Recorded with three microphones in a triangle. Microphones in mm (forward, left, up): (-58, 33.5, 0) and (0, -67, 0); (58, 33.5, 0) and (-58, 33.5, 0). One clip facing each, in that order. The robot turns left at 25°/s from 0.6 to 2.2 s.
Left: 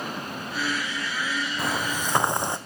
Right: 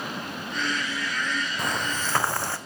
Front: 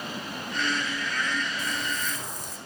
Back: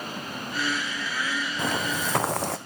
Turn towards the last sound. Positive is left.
turn(degrees=-170)